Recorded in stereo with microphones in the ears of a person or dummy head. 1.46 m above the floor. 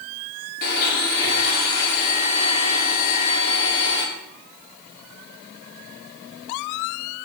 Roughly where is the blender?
Left.